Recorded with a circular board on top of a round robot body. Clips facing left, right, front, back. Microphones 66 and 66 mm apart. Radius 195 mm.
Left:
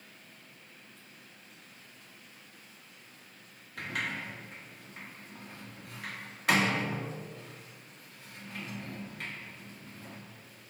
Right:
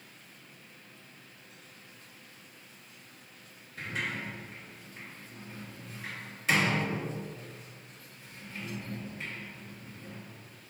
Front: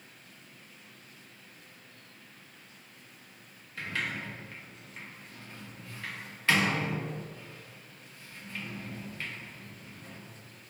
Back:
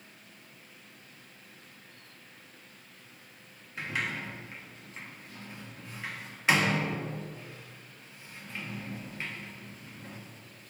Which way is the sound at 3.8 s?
105° left.